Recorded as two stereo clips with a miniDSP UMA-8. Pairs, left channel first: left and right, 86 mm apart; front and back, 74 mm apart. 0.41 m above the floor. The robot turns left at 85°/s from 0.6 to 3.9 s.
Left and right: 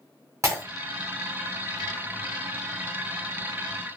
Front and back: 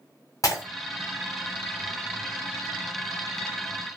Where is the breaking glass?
35° right, 1.5 m; by 0.6 s 40° right, 1.5 m.